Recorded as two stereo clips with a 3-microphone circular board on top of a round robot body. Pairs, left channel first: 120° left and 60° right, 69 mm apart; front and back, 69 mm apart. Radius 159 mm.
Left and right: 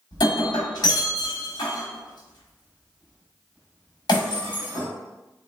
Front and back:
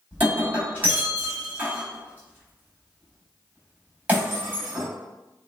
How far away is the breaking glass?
About 1.0 m.